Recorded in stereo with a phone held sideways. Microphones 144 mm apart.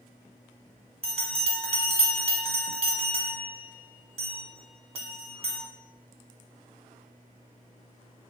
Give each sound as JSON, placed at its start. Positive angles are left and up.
{"t": 1.0, "sound": "a bell", "side_deg": -45, "distance_m": 0.8}